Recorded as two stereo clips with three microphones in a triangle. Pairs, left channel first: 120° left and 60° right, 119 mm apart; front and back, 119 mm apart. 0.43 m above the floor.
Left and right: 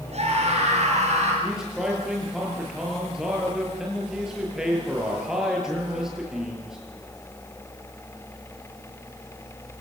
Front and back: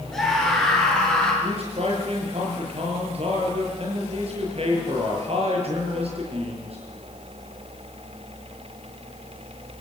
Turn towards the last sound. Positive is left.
turn(degrees=-145)